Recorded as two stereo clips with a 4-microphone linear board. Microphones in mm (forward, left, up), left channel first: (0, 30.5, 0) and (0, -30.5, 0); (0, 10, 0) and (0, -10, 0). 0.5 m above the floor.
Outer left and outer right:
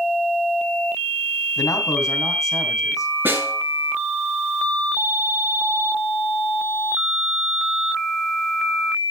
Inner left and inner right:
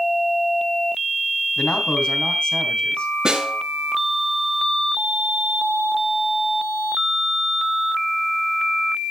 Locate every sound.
1.6 s a man speaking: 75° left (ahead or behind), 3.5 m
3.2 s a snare drum: 35° right (ahead or behind), 7 m